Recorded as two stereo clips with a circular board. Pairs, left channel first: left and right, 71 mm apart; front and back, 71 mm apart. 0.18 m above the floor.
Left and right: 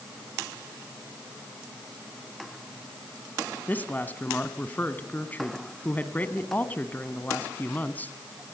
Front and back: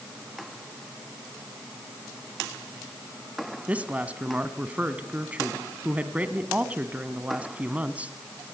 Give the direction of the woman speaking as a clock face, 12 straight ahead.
8 o'clock.